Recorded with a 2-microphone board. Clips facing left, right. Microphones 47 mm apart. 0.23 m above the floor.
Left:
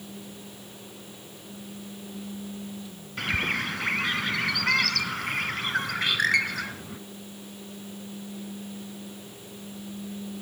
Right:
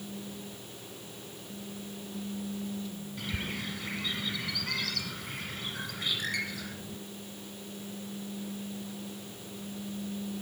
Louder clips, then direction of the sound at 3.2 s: Left 11 dB; 60° left (ahead or behind).